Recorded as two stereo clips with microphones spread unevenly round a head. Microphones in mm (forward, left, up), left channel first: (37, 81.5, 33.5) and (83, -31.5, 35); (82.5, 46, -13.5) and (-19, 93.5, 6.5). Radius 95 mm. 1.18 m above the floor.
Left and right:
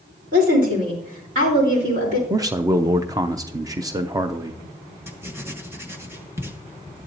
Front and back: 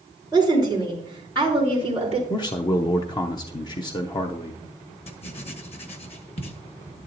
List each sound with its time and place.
0.3 s a woman speaking: 95° right, 4 m; by 2.2 s 115° right, 4 m
2.3 s a man speaking: 15° right, 0.6 m
5.1 s writing: 5° left, 1.5 m